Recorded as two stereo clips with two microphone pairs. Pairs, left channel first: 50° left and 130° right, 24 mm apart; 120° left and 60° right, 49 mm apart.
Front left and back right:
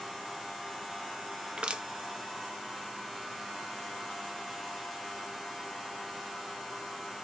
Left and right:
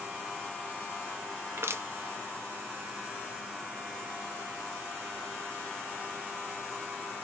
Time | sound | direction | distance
1.6 | crushing | 90° right | 0.5 m